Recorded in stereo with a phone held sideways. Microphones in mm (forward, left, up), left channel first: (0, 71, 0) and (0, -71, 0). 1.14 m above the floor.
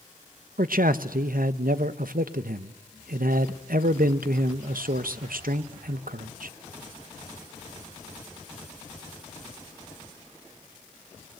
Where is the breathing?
No breathing in this recording.